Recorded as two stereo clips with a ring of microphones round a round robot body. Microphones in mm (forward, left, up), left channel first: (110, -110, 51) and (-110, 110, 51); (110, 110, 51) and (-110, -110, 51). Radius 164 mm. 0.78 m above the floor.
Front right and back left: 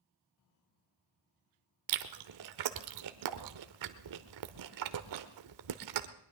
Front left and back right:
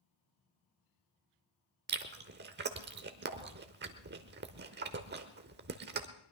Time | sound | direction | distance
1.9 | chewing | 165° left | 0.9 m